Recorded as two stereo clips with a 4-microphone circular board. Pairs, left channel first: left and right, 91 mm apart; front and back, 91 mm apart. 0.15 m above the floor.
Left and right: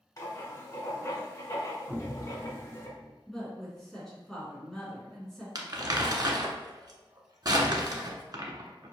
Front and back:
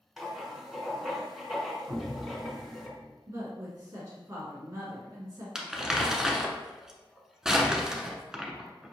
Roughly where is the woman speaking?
Behind.